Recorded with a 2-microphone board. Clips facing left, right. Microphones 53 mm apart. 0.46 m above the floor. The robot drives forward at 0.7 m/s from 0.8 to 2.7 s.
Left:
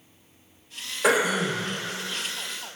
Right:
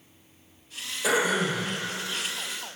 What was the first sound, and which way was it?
Throat clearing, 55° left (ahead or behind).